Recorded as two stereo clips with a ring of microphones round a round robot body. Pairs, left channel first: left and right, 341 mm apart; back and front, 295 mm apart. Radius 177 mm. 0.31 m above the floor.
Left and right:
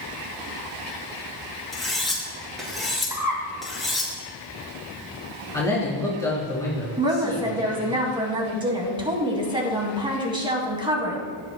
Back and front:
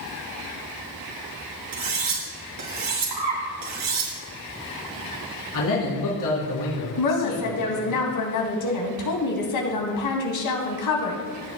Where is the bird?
10° right, 2.5 m.